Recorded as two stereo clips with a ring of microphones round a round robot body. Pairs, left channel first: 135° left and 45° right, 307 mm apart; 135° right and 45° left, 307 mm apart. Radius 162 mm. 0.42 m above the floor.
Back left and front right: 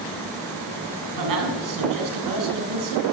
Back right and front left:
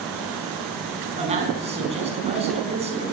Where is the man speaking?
25° right, 4 m.